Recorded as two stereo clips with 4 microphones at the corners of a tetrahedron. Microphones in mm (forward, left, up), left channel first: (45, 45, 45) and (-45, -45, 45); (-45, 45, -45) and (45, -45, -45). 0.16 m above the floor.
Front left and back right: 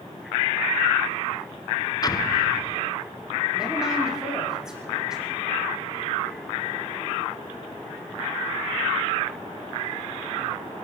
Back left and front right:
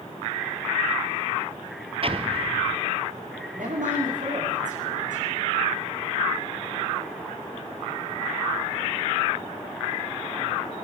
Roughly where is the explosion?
Ahead.